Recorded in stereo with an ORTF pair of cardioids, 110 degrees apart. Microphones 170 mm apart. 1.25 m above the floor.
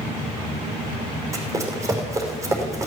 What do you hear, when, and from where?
1.3 s running footsteps: 15° right, 5 m